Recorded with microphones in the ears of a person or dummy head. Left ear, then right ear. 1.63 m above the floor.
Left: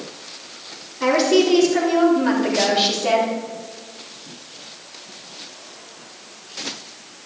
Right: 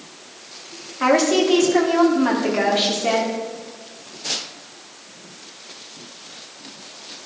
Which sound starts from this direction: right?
A woman speaking, at 1.0 s.